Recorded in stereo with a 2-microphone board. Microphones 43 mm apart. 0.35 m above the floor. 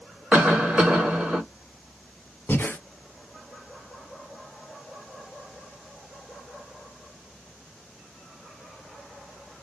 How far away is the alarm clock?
No alarm clock in this recording.